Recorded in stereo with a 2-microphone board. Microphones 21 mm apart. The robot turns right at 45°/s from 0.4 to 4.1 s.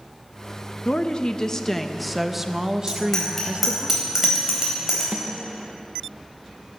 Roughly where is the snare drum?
Right.